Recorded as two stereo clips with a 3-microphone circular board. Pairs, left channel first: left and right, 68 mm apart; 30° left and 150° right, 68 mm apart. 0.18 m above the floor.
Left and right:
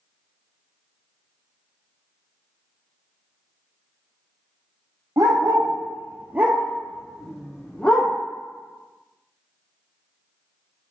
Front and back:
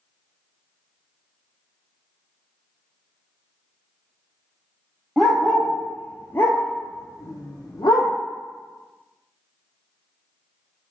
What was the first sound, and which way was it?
A dog barking, 60° right.